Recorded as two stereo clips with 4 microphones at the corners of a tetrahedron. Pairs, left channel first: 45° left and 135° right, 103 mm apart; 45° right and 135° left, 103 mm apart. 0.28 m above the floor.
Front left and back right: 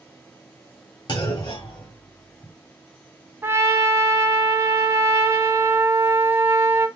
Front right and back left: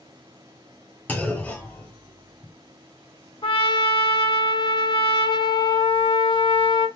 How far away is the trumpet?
About 0.8 m.